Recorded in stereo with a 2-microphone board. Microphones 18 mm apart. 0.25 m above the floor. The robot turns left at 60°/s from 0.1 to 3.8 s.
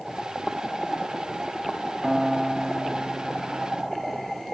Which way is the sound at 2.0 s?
155° right.